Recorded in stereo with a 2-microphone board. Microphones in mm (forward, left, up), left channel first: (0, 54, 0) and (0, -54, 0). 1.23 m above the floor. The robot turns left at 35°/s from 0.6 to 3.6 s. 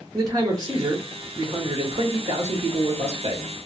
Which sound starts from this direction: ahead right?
A man speaking, at 0.1 s.